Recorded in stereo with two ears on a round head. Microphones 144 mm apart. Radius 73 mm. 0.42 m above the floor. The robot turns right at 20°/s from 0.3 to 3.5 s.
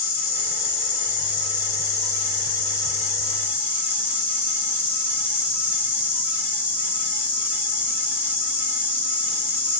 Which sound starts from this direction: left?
An insect, at 0.0 s.